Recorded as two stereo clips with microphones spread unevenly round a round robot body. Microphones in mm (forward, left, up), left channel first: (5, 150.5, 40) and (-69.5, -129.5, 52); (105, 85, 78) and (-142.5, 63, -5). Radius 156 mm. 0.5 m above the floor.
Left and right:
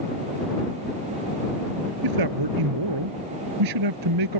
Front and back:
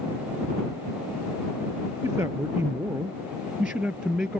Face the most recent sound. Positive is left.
turn(degrees=-85)